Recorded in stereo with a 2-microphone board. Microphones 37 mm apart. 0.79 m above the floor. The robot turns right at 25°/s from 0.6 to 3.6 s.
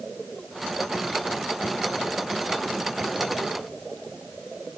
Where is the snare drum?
No snare drum in this recording.